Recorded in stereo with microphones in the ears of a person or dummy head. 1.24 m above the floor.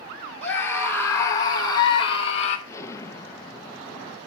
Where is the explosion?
15° left (ahead or behind), 0.6 m.